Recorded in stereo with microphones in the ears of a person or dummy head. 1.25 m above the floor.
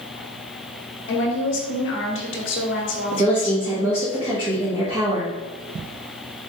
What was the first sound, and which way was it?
A woman speaking, 60° left (ahead or behind).